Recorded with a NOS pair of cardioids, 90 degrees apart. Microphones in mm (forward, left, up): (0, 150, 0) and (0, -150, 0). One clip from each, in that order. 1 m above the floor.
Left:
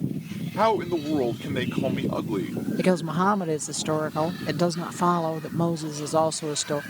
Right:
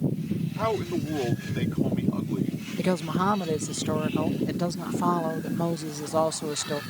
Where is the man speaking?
50° left.